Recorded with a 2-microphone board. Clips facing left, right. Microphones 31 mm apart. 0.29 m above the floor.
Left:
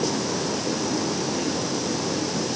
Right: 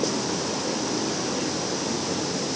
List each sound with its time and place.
Only background noise.